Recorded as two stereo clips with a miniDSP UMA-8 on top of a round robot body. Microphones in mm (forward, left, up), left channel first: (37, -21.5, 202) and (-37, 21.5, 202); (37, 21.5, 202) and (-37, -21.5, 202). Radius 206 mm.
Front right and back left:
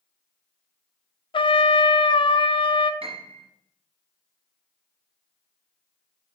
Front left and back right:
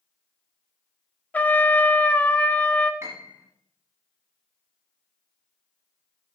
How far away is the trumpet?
About 0.7 m.